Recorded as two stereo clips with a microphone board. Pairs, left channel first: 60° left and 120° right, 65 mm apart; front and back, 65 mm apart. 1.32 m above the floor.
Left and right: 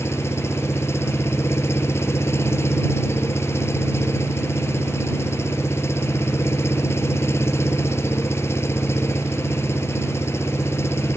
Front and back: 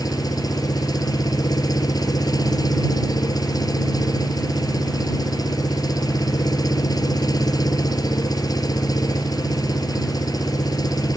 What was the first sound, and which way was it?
An engine running, 10° left.